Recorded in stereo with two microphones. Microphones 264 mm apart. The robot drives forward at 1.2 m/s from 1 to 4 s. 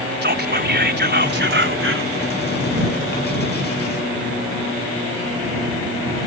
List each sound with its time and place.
0.2 s whispering: 40° right (ahead or behind); by 2.1 s 50° right (ahead or behind)